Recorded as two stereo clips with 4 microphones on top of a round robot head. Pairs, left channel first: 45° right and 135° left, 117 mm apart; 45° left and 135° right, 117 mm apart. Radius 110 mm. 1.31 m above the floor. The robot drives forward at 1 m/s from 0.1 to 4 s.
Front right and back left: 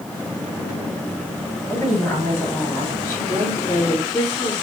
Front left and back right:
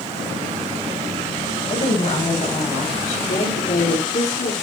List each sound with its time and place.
1.7 s a woman speaking: 30° left, 6.5 m; by 4.5 s 45° left, 4.5 m